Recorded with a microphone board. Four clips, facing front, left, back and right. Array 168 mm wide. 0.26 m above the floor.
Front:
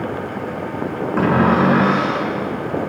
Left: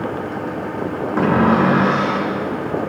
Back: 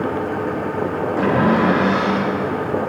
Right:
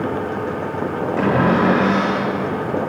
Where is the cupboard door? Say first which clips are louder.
Left 2 dB, front 2 dB; 50° left, 5.5 m.